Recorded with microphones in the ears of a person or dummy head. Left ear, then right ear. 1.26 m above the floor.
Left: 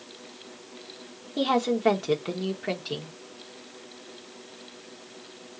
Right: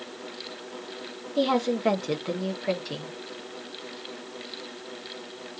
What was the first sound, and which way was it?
A woman speaking, centre (ahead or behind).